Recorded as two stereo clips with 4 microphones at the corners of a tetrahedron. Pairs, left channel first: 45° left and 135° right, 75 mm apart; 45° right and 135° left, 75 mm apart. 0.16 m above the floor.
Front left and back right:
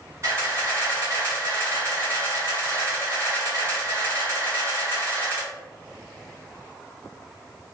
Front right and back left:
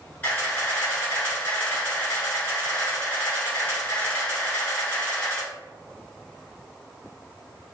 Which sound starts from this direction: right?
A camera shutter, at 0.2 s.